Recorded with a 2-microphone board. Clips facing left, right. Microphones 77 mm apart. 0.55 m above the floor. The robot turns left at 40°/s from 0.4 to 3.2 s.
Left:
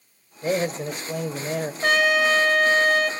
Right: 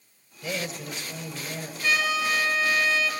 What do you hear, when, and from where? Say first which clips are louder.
0.4 s a man speaking: left 9 dB; 130° left, 2.0 m; by 1.7 s 80° left, 2.0 m
1.8 s a trumpet: left 6 dB; 100° left, 2 m; by 3.1 s 50° left, 2 m